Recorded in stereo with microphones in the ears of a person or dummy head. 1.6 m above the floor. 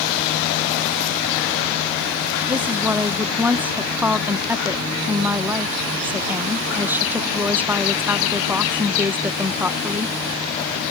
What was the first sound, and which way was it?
A woman speaking, 5° right (ahead or behind).